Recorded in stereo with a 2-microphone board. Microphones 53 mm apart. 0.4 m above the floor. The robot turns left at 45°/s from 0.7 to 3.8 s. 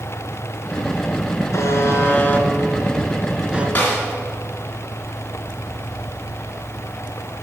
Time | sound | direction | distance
1.5 | a buzzer | 70° left (ahead or behind) | 1.2 m
3.8 | a snare drum | 30° left (ahead or behind) | 3.5 m